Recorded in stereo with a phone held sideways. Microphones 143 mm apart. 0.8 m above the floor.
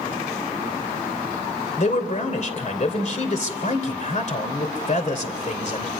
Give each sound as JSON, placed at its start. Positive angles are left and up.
{"t": 1.8, "sound": "a man speaking", "side_deg": 50, "distance_m": 2.5}